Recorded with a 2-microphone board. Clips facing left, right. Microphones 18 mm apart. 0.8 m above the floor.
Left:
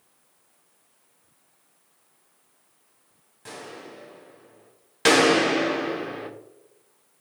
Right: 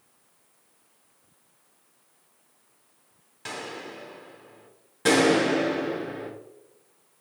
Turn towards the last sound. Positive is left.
turn(degrees=55)  # may be behind; listen again after turning